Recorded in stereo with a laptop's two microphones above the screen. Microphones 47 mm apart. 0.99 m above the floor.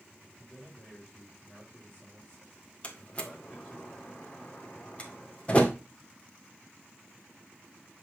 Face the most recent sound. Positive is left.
turn(degrees=25)  # may be behind; listen again after turning